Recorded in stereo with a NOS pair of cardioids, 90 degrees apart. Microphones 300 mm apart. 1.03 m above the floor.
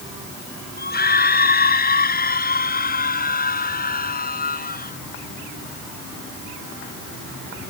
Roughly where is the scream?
Ahead left.